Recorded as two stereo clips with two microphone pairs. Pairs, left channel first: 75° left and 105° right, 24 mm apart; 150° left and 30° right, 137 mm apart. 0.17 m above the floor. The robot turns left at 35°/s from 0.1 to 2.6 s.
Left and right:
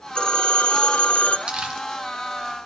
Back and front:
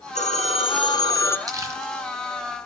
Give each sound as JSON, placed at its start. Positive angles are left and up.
{"t": 0.1, "sound": "a phone ringing", "azimuth_deg": 120, "distance_m": 1.8}
{"t": 1.5, "sound": "crumpling", "azimuth_deg": -80, "distance_m": 2.0}